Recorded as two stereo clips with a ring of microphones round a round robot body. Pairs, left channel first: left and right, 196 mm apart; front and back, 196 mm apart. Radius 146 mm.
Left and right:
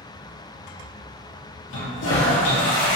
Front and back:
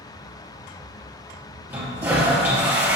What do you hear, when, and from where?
1.7 s a toilet flushing: 100° left, 2 m